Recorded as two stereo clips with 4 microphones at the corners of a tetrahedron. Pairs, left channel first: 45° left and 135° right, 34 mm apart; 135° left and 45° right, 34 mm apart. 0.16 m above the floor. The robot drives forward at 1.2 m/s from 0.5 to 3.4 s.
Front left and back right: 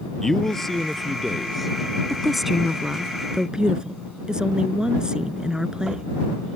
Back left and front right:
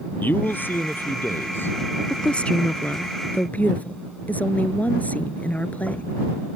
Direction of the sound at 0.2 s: 120° left.